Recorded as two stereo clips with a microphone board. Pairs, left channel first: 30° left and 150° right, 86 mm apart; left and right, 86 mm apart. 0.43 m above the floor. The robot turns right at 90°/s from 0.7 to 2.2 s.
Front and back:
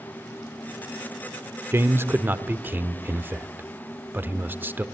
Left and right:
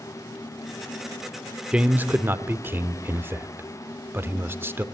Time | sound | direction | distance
1.7 | a man speaking | 160° right | 0.8 m